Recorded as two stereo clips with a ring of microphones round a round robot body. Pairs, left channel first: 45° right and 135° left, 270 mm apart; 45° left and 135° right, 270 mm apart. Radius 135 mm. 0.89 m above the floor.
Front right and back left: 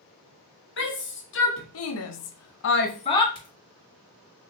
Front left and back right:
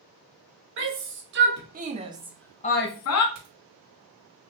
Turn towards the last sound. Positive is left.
turn(degrees=-115)